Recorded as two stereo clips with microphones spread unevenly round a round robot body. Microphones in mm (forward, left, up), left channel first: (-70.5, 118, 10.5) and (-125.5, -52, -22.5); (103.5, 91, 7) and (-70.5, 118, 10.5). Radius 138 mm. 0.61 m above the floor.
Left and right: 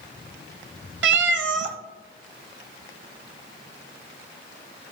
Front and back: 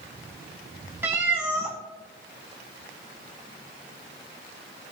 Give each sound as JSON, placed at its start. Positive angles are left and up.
{"t": 1.0, "sound": "a cat meowing", "azimuth_deg": -110, "distance_m": 0.6}